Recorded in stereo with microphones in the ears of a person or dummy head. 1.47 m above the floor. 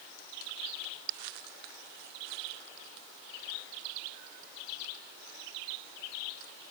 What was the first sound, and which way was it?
Only background noise.